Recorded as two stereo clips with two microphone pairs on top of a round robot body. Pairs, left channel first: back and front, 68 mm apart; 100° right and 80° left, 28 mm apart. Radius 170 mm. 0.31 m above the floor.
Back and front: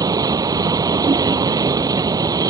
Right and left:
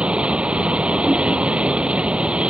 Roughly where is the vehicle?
Ahead left.